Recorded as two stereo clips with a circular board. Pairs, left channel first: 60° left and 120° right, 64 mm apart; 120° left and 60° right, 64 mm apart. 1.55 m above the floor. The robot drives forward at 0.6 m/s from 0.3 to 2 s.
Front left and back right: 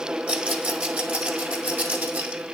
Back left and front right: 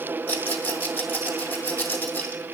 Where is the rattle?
175° left, 1.4 m; by 2.4 s straight behind, 2.5 m.